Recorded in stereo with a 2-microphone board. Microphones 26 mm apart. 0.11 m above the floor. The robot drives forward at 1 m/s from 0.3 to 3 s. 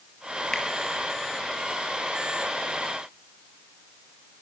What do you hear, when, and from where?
0.5 s a finger snap: 15° left (ahead or behind), 1.9 m